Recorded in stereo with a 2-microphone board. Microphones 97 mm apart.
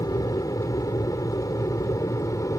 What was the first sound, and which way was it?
An aircraft, 40° left (ahead or behind).